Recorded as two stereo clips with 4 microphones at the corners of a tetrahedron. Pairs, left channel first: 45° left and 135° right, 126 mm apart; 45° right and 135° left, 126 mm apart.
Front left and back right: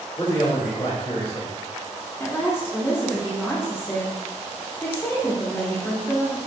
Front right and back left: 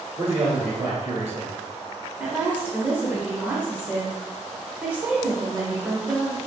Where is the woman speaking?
85° left, 0.8 m.